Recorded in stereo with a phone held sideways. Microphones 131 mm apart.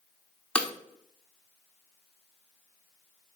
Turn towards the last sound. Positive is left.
turn(degrees=10)  # may be behind; listen again after turning